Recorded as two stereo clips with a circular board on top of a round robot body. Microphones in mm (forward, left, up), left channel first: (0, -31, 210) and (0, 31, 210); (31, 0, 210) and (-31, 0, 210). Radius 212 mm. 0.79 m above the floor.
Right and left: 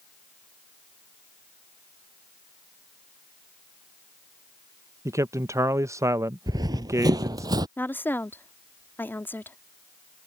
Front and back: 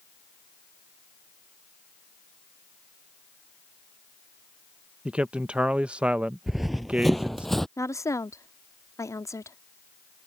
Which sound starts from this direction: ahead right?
A woman speaking, at 7.8 s.